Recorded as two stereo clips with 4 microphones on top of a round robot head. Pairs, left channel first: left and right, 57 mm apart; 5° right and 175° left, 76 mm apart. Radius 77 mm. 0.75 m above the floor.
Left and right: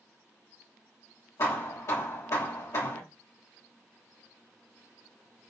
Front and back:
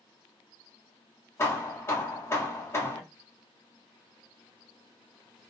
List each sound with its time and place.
1.4 s hammering: 50° left, 1.7 m